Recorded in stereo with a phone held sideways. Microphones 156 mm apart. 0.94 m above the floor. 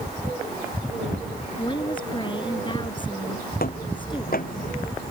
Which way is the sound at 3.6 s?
70° left (ahead or behind).